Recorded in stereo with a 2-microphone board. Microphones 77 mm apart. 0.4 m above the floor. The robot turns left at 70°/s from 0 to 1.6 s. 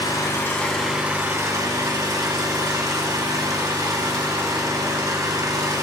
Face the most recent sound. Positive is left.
turn(degrees=-55)